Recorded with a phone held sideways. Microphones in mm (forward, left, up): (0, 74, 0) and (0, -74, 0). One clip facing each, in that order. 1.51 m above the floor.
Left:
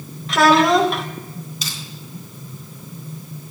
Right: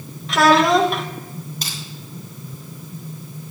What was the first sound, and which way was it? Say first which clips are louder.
A child speaking: even; centre (ahead or behind).